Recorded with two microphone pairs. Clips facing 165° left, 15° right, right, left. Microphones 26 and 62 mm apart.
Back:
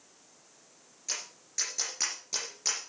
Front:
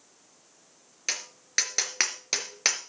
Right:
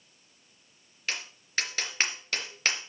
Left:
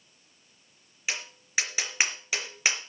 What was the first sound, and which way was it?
Tapping, 10° left.